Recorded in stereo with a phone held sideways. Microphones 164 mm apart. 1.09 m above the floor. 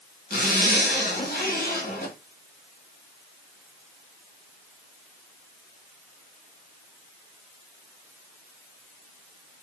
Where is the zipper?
55° left (ahead or behind), 1.5 m.